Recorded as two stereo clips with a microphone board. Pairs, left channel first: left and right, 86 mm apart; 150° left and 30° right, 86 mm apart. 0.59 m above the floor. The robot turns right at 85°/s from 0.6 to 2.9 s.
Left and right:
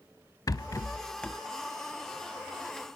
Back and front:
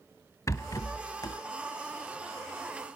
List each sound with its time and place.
0.5 s a rattle: 110° left, 0.5 m; by 1.4 s straight behind, 0.5 m